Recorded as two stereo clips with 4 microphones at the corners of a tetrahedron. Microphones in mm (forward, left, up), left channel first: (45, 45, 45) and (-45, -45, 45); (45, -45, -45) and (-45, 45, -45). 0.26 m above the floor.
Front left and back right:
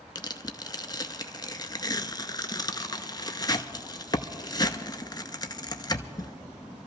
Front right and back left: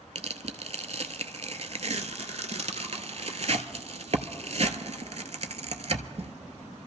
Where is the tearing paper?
100° left, 0.6 m.